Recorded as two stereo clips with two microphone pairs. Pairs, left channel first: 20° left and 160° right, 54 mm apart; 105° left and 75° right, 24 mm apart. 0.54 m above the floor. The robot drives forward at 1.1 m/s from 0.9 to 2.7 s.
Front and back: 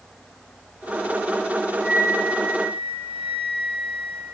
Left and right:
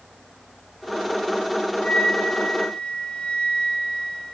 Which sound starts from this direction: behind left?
A flute, at 1.8 s.